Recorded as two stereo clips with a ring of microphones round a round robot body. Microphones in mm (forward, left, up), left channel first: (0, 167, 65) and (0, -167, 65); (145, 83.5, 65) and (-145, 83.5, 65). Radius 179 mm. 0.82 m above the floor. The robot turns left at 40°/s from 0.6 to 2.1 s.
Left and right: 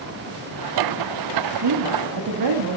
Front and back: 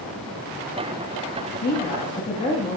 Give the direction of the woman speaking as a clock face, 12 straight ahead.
2 o'clock.